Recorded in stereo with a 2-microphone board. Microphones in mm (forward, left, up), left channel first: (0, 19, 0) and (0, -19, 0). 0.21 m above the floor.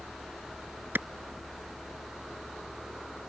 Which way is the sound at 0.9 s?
65° right (ahead or behind).